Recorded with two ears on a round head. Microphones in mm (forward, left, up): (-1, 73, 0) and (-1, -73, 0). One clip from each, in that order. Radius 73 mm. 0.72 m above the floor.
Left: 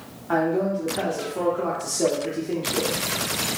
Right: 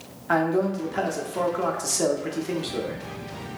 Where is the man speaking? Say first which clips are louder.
Even; 50° right (ahead or behind), 0.7 m.